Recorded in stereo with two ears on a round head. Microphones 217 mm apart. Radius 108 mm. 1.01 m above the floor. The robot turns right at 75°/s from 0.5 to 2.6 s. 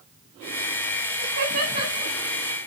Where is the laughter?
75° right (ahead or behind), 7 m; by 2.1 s 5° right (ahead or behind), 7 m.